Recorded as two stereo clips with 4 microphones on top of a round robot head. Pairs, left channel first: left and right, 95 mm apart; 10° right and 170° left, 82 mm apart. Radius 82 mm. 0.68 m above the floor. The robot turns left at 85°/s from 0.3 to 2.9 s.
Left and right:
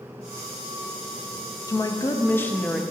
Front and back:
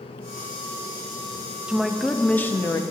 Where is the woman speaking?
100° left, 0.5 m; by 2.8 s 5° left, 0.5 m.